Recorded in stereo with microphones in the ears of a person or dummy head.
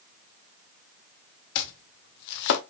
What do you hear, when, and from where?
1.6 s chopping: 55° left (ahead or behind), 0.7 m